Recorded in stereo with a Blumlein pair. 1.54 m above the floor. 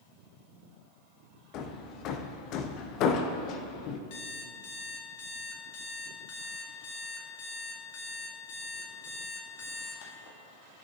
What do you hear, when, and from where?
1.5 s hammering: 35° left, 0.8 m
4.1 s an alarm clock: 50° left, 1.9 m